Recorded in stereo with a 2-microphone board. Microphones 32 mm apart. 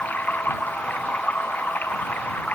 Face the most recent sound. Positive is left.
turn(degrees=70)  # may be behind; listen again after turning